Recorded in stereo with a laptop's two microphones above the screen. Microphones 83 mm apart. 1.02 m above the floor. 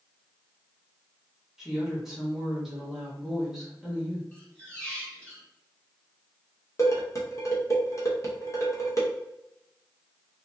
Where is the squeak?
15° left (ahead or behind), 1.1 m.